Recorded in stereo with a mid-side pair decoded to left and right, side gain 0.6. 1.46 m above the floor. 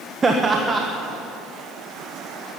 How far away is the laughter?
About 1.3 m.